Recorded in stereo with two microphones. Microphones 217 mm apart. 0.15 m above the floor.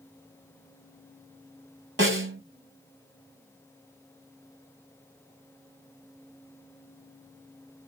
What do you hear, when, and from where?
2.0 s a snare drum: 65° right (ahead or behind), 0.9 m